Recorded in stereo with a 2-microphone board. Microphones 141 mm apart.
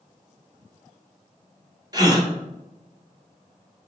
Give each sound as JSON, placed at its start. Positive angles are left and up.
{"t": 1.9, "sound": "a gasp", "side_deg": -25, "distance_m": 2.0}